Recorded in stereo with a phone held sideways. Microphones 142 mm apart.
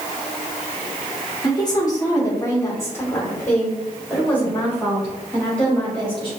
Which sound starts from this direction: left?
A woman speaking, at 1.4 s.